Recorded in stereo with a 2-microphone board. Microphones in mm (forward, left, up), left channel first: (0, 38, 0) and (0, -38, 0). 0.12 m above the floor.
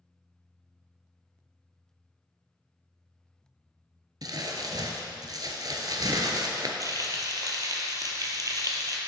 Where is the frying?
50° right (ahead or behind), 0.9 m.